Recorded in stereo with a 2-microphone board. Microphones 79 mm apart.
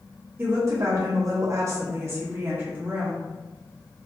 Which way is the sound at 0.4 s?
30° right (ahead or behind).